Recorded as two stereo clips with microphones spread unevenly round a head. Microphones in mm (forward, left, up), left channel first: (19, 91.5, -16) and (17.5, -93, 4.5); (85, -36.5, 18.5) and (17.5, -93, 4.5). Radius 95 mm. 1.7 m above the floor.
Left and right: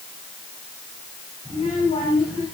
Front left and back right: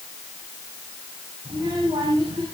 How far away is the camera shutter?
I don't hear a camera shutter.